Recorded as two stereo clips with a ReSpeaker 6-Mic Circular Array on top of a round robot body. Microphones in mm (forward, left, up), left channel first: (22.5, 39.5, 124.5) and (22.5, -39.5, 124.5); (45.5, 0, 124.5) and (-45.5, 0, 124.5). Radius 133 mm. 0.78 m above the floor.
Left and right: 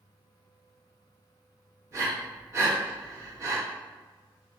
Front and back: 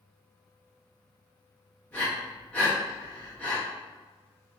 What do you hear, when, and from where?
1.9 s breathing: 65° right, 1.1 m